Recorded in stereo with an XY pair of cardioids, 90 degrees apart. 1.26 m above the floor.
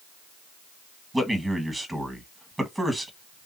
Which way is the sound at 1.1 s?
15° right.